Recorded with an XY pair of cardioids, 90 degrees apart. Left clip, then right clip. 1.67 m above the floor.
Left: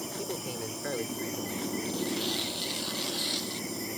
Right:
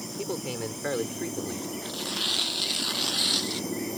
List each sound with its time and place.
0.2 s a man speaking: 35° right; by 1.8 s 50° right
1.9 s tearing paper: 50° right